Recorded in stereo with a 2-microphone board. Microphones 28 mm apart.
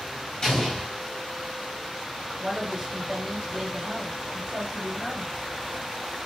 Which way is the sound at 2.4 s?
30° right (ahead or behind).